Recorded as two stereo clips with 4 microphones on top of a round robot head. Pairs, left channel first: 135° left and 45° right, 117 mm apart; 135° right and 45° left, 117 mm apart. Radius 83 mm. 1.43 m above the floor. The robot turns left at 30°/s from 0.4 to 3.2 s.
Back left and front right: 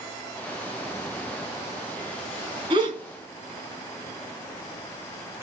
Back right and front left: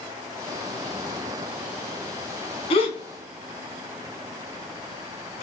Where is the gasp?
100° right, 2 m; by 5.4 s 115° right, 2 m.